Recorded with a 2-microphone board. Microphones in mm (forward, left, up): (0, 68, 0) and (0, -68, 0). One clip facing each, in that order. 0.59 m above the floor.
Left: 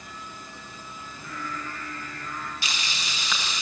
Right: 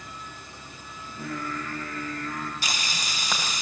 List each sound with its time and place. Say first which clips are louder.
1.0 s singing: right 5 dB; 80° right, 9.5 m
2.6 s frying: right 2 dB; 40° right (ahead or behind), 3.5 m